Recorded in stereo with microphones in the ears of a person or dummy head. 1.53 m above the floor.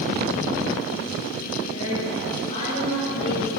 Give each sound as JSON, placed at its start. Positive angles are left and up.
{"t": 1.7, "sound": "a woman speaking", "side_deg": 30, "distance_m": 10.0}